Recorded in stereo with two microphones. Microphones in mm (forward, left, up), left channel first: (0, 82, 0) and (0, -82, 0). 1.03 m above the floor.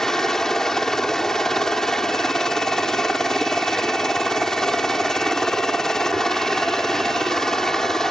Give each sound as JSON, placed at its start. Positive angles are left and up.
{"t": 0.0, "sound": "a helicopter", "side_deg": 5}